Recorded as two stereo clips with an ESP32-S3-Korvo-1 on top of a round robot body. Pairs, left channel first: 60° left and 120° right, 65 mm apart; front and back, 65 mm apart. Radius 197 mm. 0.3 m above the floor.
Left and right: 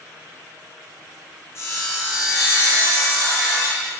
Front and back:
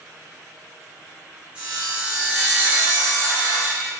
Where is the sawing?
105° left, 0.7 m.